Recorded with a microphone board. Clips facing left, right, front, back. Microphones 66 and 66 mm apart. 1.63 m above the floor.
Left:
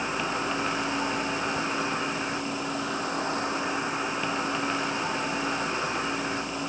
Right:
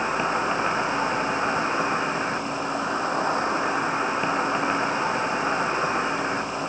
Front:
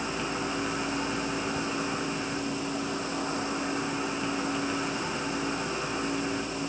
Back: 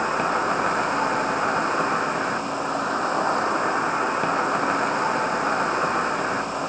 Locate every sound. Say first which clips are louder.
0.0 s an insect: right 5 dB, back 9 dB; 150° right, 1.2 m